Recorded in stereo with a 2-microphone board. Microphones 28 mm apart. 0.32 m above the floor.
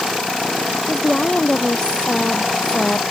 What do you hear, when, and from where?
0.9 s a woman speaking: 30° left (ahead or behind)